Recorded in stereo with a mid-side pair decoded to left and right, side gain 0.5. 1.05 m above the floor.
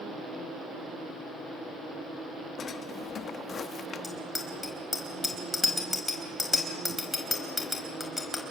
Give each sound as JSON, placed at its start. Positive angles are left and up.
{"t": 2.6, "sound": "a drawer", "azimuth_deg": 50, "distance_m": 0.8}
{"t": 4.0, "sound": "a bicycle bell", "azimuth_deg": 20, "distance_m": 4.5}